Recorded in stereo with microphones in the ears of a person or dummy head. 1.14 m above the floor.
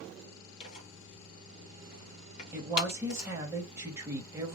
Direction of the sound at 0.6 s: 30° left (ahead or behind).